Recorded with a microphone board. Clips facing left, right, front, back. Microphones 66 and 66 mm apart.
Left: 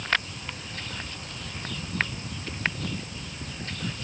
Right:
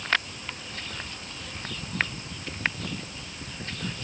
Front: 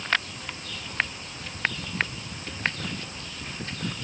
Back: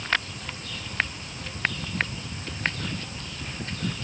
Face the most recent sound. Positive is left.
No sound to turn to.